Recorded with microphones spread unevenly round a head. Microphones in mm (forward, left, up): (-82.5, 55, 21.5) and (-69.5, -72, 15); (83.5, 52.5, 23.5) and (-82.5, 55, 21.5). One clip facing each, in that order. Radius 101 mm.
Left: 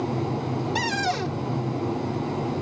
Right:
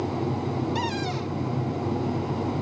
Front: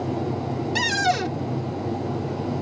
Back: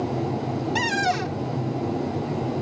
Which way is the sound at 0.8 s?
45° left.